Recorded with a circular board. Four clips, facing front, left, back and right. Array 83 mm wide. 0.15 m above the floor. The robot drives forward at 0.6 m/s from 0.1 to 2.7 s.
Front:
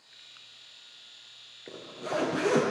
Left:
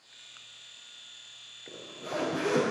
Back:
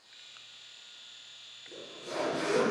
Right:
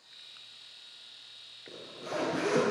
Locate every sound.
1.7 s a zipper: 10° left, 5 m